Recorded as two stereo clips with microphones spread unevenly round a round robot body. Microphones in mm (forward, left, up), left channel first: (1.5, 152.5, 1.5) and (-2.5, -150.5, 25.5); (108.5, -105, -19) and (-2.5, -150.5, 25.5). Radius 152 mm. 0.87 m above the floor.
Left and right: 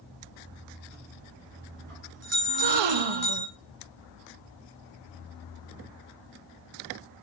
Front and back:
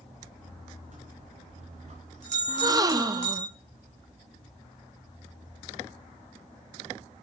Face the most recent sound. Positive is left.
turn(degrees=-85)